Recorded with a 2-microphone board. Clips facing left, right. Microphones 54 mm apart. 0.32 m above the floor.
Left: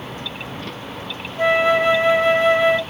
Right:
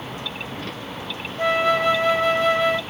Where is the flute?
25° left (ahead or behind), 1.6 m.